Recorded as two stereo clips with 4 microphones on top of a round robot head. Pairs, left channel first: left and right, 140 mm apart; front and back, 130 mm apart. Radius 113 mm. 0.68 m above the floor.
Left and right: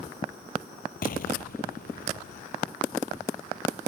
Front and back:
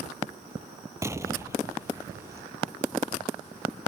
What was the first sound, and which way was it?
An explosion, 110° left.